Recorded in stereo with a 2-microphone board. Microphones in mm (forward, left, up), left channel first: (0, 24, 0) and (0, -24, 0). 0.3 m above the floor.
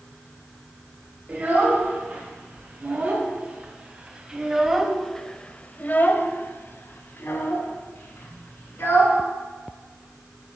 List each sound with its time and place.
1.3 s a child speaking: 35° right (ahead or behind), 2 m; by 9.2 s 50° left (ahead or behind), 2 m